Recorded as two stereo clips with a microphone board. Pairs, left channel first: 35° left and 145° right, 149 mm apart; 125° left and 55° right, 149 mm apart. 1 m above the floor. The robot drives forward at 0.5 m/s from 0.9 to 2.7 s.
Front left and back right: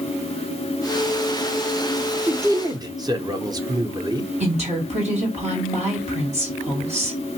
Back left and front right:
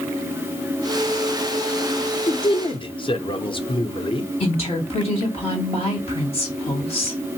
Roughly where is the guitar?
I don't hear a guitar.